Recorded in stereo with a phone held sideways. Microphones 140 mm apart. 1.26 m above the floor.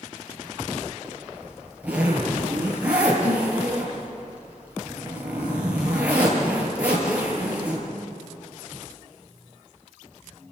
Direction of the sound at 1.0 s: 10° right (ahead or behind).